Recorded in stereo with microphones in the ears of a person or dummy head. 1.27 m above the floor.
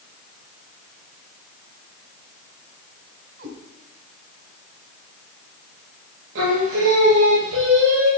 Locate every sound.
3.4 s a cat meowing: 60° right (ahead or behind), 4 m
6.3 s singing: 75° right (ahead or behind), 6.5 m